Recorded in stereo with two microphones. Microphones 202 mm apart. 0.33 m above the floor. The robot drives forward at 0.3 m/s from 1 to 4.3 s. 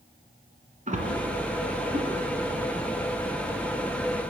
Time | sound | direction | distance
0.9 | a splash | 40° right (ahead or behind) | 1.4 m